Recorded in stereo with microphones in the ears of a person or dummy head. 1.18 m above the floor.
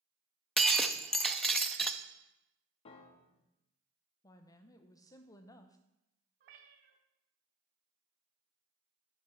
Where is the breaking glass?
Centre (ahead or behind), 0.5 m.